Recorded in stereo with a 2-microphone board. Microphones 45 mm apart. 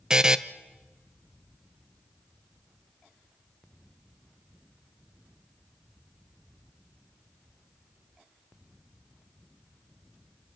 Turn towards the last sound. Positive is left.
turn(degrees=-15)  # may be behind; listen again after turning